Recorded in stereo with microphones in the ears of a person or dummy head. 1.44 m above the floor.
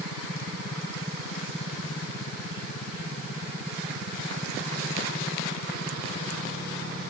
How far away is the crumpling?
I don't hear crumpling.